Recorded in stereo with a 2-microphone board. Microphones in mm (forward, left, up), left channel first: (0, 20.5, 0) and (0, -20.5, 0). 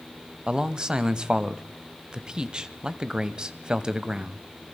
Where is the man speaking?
20° right (ahead or behind), 0.9 m.